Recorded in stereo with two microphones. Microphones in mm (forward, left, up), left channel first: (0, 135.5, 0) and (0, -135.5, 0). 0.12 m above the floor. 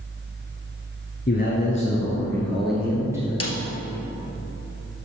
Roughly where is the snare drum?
Left.